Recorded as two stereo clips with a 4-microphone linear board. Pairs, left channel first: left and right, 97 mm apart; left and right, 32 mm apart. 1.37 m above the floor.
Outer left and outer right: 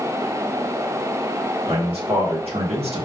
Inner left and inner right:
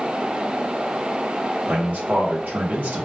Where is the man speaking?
80° right, 1.8 m; by 3.0 s 85° right, 1.0 m.